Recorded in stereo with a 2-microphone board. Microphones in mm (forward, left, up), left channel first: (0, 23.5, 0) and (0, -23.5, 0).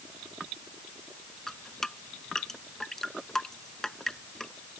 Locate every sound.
1.5 s dripping: 10° left (ahead or behind)